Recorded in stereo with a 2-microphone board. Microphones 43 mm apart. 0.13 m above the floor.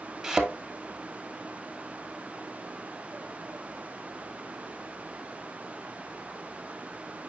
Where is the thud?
15° right (ahead or behind), 1.5 m.